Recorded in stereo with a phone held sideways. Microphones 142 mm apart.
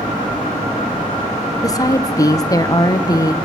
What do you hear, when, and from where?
1.6 s a woman speaking: 25° left (ahead or behind), 0.9 m